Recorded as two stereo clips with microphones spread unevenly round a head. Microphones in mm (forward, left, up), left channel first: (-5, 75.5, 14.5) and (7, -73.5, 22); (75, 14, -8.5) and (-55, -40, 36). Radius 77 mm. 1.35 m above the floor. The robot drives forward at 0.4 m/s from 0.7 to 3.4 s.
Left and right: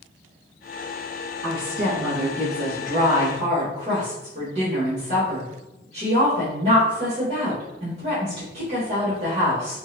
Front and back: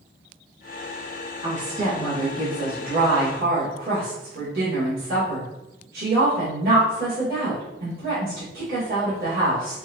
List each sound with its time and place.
1.4 s a woman speaking: 115° right, 1.7 m; by 9.8 s 135° right, 2 m